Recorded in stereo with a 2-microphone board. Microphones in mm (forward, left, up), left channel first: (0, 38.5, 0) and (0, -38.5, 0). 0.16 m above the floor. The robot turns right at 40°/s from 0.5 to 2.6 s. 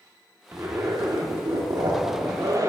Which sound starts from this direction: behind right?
A zipper, at 0.5 s.